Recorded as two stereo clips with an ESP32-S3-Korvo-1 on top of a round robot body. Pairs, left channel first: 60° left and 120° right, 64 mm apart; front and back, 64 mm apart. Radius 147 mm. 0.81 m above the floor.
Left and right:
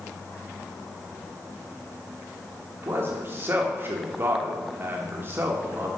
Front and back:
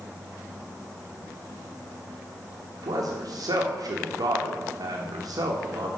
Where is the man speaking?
175° right, 1.2 m.